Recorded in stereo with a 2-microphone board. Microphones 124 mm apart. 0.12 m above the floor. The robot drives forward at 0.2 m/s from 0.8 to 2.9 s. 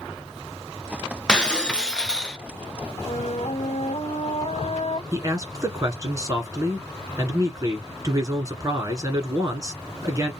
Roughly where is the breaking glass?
Centre.